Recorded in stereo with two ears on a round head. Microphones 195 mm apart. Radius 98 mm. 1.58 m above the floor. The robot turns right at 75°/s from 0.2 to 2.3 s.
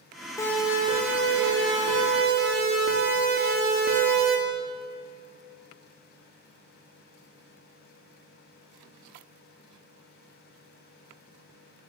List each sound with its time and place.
0.4 s a siren: 15° left (ahead or behind), 7.5 m; by 4.4 s 40° right (ahead or behind), 4.5 m